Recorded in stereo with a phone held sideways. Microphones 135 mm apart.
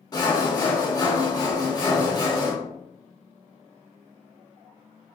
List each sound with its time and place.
0.1 s sawing: 30° left (ahead or behind), 0.7 m